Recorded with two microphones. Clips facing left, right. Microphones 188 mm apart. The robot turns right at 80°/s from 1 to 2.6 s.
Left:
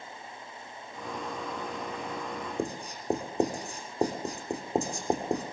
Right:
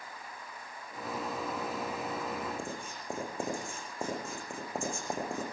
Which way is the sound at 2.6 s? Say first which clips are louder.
Left 6 dB; 35° left (ahead or behind).